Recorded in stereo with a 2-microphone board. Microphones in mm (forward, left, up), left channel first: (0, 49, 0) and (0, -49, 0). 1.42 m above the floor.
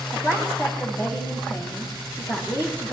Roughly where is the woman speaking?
Left.